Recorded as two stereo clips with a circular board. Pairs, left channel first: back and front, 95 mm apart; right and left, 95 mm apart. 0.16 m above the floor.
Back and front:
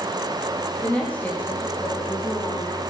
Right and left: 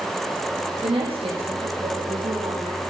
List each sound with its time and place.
0.8 s a woman speaking: 105° left, 8 m; by 2.8 s 110° left, 10.5 m